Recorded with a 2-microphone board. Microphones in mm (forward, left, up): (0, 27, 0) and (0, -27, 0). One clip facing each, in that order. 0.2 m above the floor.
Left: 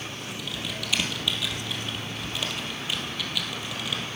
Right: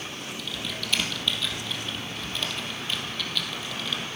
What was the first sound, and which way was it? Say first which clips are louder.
Typing on a keyboard: even; 5° left (ahead or behind).